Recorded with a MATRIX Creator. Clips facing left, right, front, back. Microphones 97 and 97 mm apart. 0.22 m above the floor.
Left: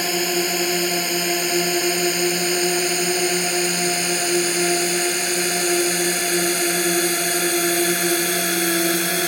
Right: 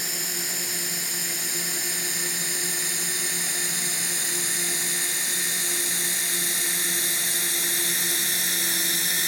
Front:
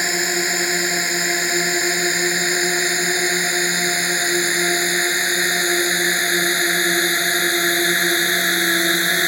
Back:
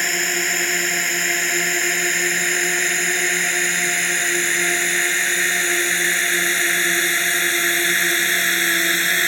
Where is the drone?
80° left; by 9.3 s 75° left.